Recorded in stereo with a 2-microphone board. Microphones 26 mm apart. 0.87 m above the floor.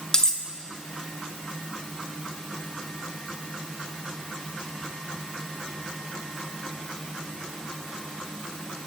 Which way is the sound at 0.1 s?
30° left (ahead or behind).